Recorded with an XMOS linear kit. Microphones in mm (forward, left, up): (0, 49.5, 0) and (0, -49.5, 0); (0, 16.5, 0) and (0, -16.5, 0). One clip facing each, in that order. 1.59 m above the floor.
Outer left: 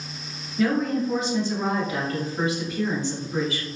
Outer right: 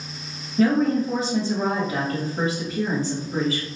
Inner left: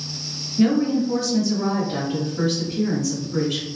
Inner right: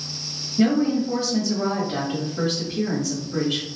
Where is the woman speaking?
35° right (ahead or behind), 0.9 m.